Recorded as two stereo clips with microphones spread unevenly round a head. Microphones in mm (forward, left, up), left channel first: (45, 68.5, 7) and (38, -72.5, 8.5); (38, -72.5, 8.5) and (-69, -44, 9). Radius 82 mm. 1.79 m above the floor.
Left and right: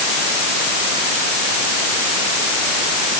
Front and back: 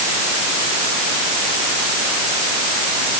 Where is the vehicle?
I don't hear a vehicle.